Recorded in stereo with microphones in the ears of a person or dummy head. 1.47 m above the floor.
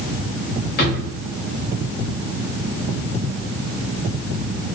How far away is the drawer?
About 1.1 m.